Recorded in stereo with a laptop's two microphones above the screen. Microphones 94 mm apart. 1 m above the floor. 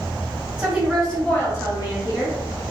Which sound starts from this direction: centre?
A woman speaking, at 0.6 s.